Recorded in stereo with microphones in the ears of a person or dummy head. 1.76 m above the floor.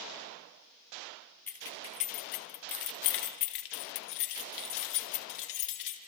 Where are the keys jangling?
10° left (ahead or behind), 0.8 m; by 6.0 s 65° left (ahead or behind), 2.5 m.